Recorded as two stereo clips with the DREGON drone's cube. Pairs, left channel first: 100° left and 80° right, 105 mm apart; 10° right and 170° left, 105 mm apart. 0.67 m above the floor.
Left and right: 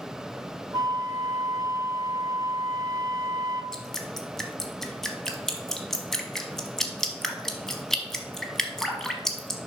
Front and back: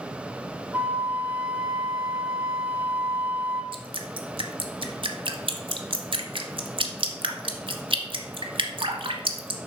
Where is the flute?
120° right, 0.7 m.